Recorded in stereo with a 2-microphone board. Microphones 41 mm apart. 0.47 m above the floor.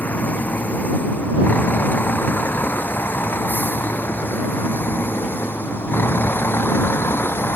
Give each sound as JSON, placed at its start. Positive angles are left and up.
{"t": 0.0, "sound": "a vehicle", "side_deg": 45}